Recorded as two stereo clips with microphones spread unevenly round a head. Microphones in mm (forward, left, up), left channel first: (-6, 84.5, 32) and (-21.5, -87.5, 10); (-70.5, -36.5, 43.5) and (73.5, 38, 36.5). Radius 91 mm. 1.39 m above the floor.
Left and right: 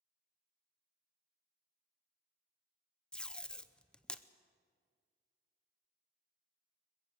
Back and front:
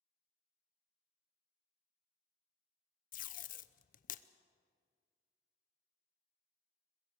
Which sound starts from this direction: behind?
Tape being pulled, at 3.1 s.